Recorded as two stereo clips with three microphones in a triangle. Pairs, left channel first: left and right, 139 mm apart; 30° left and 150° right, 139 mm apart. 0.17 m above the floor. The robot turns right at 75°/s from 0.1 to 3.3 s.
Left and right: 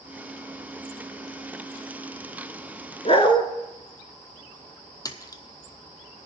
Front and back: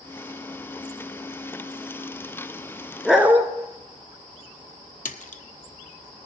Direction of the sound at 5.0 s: 30° left.